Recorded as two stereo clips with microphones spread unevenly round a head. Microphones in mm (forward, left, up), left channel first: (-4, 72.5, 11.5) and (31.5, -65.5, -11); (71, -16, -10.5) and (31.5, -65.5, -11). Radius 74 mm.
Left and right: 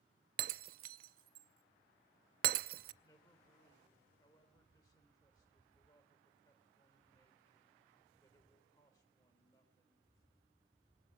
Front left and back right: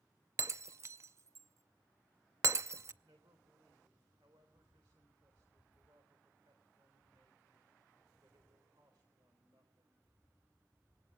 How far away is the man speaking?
About 3.5 m.